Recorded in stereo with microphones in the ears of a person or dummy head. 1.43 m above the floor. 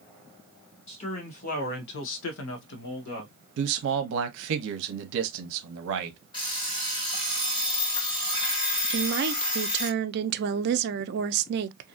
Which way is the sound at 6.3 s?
30° left (ahead or behind).